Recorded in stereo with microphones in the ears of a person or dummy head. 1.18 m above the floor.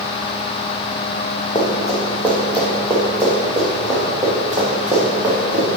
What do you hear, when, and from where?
1.6 s running footsteps: 20° left (ahead or behind), 2.5 m; by 5.7 s 15° right (ahead or behind), 4.5 m